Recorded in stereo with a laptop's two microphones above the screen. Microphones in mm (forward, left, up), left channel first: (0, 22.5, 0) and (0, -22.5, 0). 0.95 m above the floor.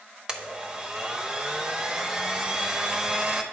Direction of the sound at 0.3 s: 20° right (ahead or behind).